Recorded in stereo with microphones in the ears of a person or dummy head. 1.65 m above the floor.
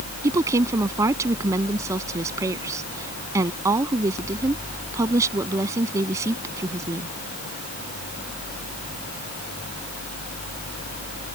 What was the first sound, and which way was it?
A woman speaking, 15° right (ahead or behind).